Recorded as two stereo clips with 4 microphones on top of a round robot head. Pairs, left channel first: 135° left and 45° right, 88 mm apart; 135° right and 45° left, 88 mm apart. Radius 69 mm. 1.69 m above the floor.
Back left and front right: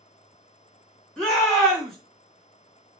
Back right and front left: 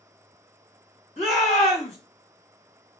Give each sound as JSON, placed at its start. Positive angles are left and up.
{"t": 1.2, "sound": "a shout", "azimuth_deg": -140, "distance_m": 2.0}